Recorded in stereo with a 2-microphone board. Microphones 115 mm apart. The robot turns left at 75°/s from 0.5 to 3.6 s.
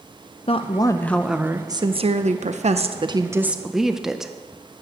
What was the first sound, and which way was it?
A woman speaking, 55° left.